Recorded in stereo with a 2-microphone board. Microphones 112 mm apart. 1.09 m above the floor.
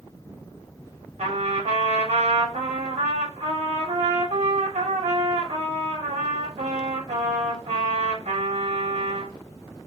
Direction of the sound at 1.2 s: 85° right.